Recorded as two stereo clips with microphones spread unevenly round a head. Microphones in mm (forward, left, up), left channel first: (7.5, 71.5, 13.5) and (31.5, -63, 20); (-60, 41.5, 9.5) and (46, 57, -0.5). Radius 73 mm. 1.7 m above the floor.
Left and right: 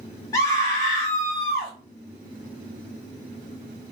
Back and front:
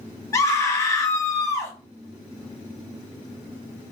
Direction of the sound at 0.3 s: 160° left.